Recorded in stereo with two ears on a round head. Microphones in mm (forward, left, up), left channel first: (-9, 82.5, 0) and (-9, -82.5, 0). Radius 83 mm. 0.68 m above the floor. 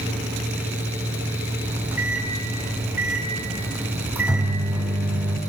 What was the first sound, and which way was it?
A microwave, 10° right (ahead or behind).